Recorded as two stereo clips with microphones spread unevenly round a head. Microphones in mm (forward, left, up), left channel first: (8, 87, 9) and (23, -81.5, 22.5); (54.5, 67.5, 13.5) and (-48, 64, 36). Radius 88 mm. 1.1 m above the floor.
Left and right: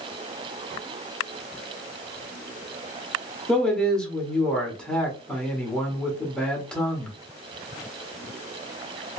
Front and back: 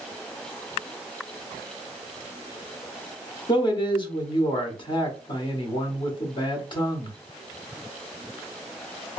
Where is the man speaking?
15° left, 1.4 m.